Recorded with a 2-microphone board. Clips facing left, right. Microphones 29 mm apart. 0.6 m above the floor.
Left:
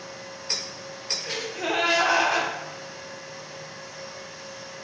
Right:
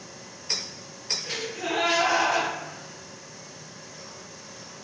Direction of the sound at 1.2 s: 35° left (ahead or behind).